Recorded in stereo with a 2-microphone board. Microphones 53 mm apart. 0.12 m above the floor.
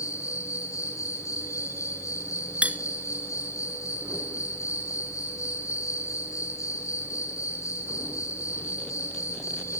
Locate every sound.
0.0 s an insect: 85° left, 5 m
2.6 s cutlery clinking: 25° right (ahead or behind), 1.0 m